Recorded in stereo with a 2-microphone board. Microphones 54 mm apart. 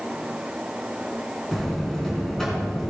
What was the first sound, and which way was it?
A buzzer, 10° left (ahead or behind).